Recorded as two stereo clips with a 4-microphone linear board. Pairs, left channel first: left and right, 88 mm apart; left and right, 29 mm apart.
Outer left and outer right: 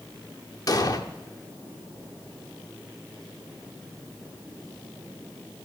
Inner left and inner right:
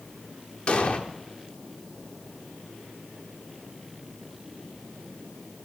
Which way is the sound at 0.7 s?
45° left (ahead or behind).